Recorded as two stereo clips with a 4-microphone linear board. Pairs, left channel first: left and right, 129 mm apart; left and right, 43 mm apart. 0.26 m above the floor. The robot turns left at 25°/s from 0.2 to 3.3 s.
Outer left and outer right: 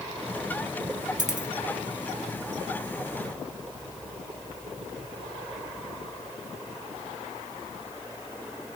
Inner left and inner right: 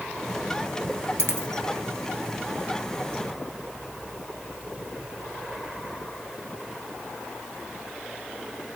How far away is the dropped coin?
About 1.3 m.